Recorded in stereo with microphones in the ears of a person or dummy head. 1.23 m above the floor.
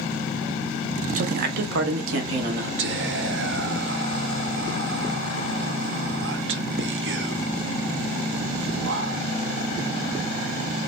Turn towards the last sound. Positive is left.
turn(degrees=-55)  # may be behind; listen again after turning